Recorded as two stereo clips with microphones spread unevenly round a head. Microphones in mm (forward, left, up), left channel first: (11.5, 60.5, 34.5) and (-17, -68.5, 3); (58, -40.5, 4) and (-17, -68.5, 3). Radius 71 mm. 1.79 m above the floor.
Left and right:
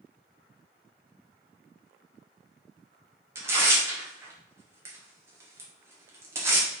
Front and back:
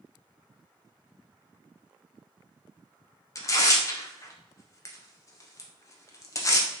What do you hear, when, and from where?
3.4 s tearing paper: 25° right, 1.0 m